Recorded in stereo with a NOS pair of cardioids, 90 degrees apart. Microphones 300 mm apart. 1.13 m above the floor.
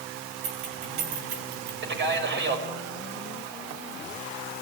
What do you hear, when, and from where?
0.4 s keys jangling: 70° right, 5.5 m; by 1.7 s 75° right, 5 m
1.8 s a man speaking: 40° right, 6 m